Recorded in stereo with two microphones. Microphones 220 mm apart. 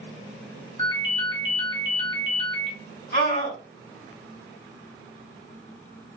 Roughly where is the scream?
Left.